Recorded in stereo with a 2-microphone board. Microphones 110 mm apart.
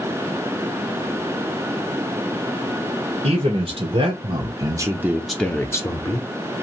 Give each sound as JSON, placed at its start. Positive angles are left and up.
{"t": 3.2, "sound": "a man speaking", "side_deg": -65, "distance_m": 1.2}